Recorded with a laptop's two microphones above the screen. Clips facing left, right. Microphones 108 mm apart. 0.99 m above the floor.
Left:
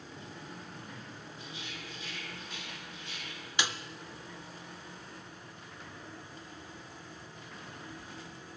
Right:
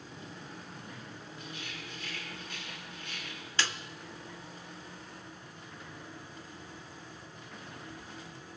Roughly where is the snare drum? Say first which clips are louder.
Even; centre.